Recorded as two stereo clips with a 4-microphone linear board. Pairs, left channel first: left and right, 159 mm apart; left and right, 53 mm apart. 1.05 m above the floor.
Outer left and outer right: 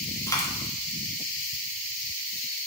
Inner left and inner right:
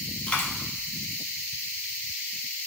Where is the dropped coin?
20° left (ahead or behind), 0.5 m.